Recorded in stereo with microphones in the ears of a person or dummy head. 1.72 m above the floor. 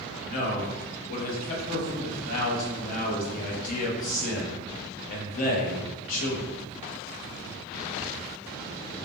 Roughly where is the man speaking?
Left.